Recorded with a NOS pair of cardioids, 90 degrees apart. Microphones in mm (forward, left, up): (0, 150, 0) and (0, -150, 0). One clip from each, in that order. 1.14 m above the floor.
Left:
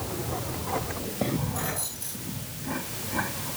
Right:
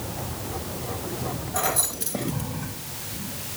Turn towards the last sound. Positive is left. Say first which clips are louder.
# right 7 dB
turn(degrees=-60)